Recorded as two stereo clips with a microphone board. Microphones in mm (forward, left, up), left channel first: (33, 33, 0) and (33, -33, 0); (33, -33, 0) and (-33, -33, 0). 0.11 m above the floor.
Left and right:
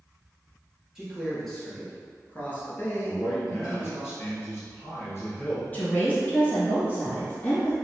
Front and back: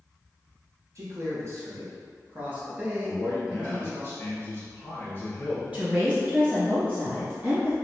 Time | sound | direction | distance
0.9 | a man speaking | 170° right | 1.6 m
3.0 | a man speaking | 50° left | 1.7 m
5.7 | a woman speaking | 125° left | 1.8 m